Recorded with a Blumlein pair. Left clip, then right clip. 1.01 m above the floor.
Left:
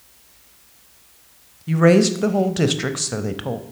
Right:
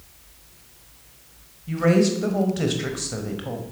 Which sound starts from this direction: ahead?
A woman speaking, at 1.7 s.